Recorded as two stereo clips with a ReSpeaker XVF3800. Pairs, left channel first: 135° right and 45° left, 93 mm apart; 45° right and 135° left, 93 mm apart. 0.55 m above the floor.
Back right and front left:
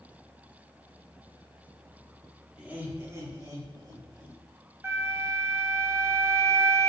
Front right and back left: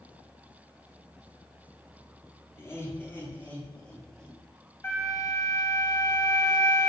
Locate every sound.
2.6 s laughter: 25° right, 1.0 m; by 4.4 s 35° left, 1.7 m
4.8 s a flute: straight ahead, 0.9 m